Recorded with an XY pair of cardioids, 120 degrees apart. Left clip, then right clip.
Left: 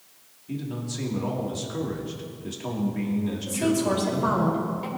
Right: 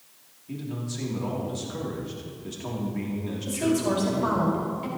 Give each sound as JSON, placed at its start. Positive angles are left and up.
{"t": 0.5, "sound": "a man speaking", "azimuth_deg": 10, "distance_m": 2.5}
{"t": 3.5, "sound": "a woman speaking", "azimuth_deg": 5, "distance_m": 4.5}